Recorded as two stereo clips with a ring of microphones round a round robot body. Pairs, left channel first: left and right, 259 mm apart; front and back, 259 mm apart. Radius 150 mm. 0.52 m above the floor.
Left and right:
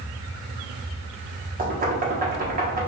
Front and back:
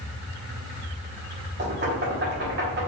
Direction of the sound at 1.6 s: 140° right.